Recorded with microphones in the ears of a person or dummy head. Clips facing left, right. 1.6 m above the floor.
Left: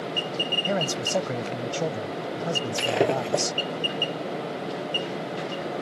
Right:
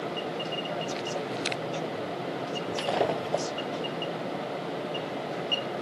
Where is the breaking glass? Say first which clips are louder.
Left 4 dB; 35° left (ahead or behind).